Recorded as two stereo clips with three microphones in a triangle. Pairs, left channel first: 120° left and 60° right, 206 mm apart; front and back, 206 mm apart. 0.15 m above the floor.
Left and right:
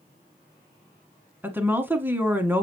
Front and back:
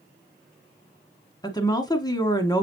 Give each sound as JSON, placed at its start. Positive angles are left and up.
{"t": 1.4, "sound": "a woman speaking", "azimuth_deg": 0, "distance_m": 1.1}